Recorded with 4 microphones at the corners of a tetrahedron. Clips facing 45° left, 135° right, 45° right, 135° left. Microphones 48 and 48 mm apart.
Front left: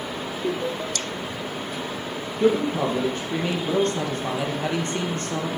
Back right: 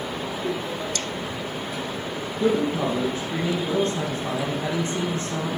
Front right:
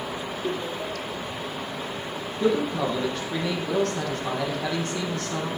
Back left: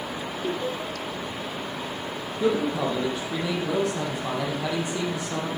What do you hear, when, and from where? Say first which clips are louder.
0.4 s laughter: front left 4 dB, back left 1 dB; 60° left, 2 m
2.4 s a man speaking: front left 2 dB, even; 60° left, 3.5 m